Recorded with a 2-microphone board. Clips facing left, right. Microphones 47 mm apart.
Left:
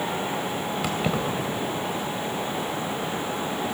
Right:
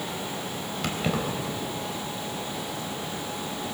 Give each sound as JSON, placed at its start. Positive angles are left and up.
{"t": 0.8, "sound": "keys jangling", "side_deg": 10, "distance_m": 3.0}